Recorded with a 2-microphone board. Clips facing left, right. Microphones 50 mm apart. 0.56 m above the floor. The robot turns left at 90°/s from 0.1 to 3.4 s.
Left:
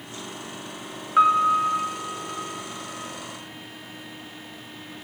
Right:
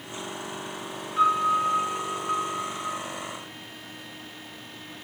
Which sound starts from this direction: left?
A piano, at 1.2 s.